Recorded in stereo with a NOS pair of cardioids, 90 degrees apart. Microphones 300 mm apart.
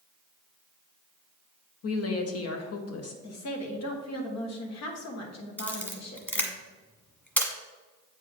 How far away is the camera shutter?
About 1.4 m.